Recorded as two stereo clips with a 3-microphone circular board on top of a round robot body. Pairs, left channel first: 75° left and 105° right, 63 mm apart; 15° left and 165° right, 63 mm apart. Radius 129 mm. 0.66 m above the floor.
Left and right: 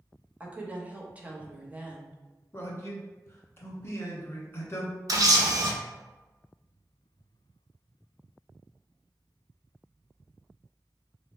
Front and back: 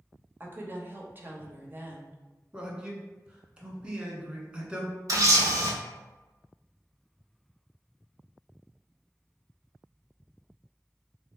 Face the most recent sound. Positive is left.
turn(degrees=-135)